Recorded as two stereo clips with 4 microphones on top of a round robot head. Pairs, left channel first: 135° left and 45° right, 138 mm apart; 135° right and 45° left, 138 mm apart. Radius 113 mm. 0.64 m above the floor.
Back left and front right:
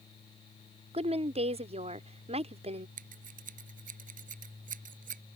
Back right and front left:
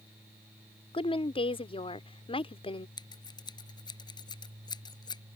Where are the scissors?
75° right.